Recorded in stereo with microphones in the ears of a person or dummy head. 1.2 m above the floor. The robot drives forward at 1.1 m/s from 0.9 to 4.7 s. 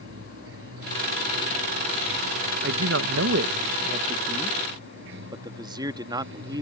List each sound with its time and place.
0.0 s running water: 90° right; by 6.6 s 80° right
2.6 s a man speaking: 60° right (ahead or behind); by 6.6 s 30° right (ahead or behind)